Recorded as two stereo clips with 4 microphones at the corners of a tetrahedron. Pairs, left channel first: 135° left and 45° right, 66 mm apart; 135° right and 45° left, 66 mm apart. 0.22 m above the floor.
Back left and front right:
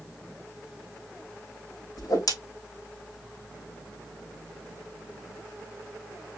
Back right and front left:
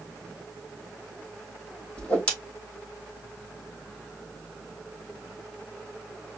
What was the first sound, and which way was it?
A whoosh, 155° left.